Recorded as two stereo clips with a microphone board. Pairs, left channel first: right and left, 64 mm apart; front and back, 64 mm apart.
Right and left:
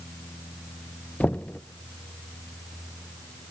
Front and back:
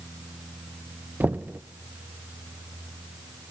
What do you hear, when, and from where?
1.2 s knocking: 145° right, 0.5 m